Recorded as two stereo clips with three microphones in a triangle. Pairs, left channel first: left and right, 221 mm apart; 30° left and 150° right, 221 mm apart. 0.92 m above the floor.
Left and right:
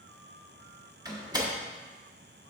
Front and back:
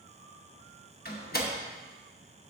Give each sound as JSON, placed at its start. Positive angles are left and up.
{"t": 1.1, "sound": "a door slam", "azimuth_deg": -20, "distance_m": 1.0}